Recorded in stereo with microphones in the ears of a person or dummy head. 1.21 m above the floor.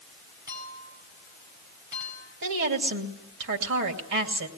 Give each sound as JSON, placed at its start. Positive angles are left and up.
{"t": 0.5, "sound": "a clink", "side_deg": -15, "distance_m": 7.0}
{"t": 2.4, "sound": "a woman speaking", "side_deg": -60, "distance_m": 2.5}